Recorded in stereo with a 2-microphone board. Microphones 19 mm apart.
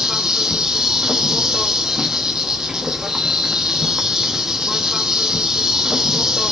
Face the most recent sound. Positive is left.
turn(degrees=-35)  # may be behind; listen again after turning